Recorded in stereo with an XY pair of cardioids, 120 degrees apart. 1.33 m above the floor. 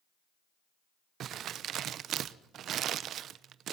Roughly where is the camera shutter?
I don't hear a camera shutter.